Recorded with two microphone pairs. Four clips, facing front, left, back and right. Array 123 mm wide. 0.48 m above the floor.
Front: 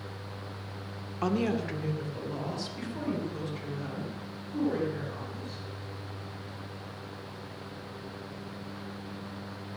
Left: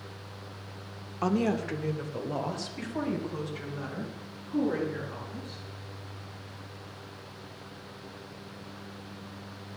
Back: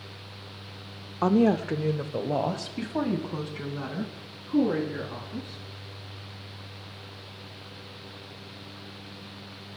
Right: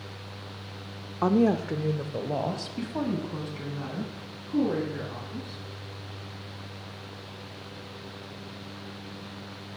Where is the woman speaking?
140° right, 0.9 m; by 5.6 s 170° right, 7 m.